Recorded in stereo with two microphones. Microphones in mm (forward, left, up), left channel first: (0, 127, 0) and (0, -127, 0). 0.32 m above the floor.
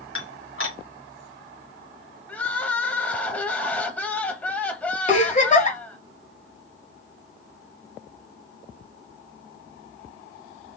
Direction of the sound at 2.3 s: 5° left (ahead or behind).